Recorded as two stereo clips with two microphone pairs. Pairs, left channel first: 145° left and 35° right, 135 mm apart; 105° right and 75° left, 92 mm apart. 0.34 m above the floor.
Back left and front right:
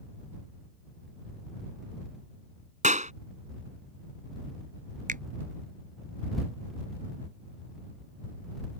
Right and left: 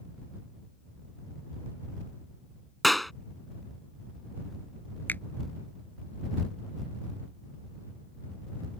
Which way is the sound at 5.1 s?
35° right.